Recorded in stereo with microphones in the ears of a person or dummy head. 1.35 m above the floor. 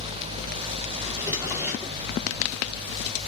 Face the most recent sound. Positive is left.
turn(degrees=-10)  # may be behind; listen again after turning